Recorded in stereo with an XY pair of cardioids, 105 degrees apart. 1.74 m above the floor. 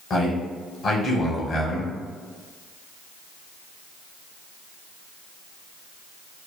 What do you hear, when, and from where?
0.1 s a man speaking: 50° left, 1.0 m